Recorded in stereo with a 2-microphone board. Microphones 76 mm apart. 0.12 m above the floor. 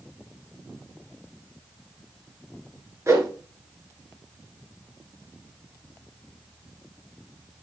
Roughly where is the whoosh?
Right.